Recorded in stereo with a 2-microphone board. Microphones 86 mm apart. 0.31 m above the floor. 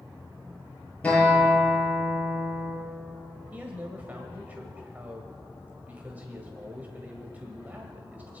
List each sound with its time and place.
1.0 s a guitar: 15° left (ahead or behind), 7.5 m
3.5 s a man speaking: 20° right (ahead or behind), 1.5 m